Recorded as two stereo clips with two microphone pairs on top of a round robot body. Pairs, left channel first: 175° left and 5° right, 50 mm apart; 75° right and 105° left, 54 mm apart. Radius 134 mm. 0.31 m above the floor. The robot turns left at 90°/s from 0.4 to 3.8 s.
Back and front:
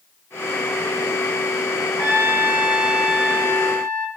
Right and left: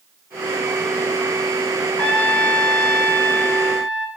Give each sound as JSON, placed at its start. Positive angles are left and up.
{"t": 2.0, "sound": "a trumpet", "azimuth_deg": -10, "distance_m": 2.0}